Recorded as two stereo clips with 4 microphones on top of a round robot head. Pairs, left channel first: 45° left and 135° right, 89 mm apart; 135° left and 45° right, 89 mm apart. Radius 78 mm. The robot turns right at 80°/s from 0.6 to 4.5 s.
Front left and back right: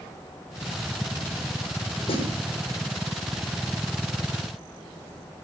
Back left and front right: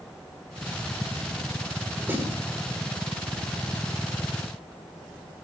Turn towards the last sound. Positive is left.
turn(degrees=-145)